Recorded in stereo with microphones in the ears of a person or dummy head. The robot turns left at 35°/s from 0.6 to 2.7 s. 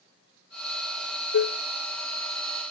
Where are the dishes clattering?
65° left (ahead or behind), 0.5 m.